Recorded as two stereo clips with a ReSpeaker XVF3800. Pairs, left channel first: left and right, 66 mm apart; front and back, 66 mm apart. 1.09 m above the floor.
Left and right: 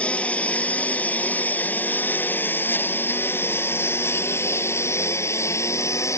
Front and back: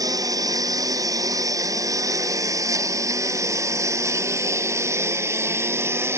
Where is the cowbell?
I don't hear a cowbell.